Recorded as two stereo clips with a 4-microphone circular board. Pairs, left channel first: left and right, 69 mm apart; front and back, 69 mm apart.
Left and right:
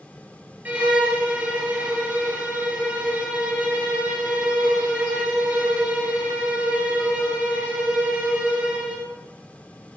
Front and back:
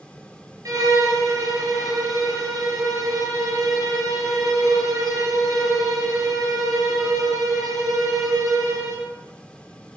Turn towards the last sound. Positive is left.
turn(degrees=-155)